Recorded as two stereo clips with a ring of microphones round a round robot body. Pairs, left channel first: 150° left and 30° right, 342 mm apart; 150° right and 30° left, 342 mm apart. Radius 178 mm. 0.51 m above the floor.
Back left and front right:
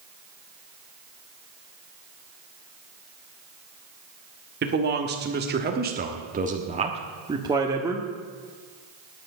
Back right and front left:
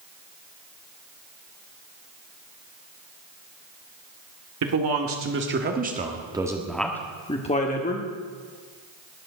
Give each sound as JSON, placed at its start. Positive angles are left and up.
{"t": 4.6, "sound": "a man speaking", "azimuth_deg": 20, "distance_m": 1.9}